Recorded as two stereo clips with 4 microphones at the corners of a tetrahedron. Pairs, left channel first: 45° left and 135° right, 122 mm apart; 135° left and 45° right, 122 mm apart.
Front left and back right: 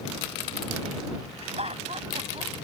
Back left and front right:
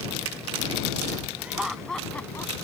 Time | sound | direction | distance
1.4 | laughter | 120° right | ?